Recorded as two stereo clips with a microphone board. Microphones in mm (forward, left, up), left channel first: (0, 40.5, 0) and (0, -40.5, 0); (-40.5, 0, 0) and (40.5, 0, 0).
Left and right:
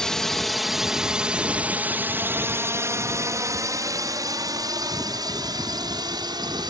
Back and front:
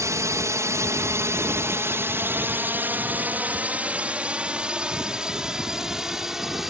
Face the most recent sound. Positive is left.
turn(degrees=-85)